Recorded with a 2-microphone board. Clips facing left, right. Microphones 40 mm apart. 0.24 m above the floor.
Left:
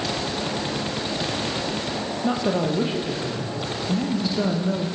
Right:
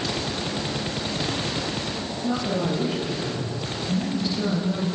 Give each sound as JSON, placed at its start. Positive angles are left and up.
{"t": 2.2, "sound": "a woman speaking", "side_deg": 50, "distance_m": 6.5}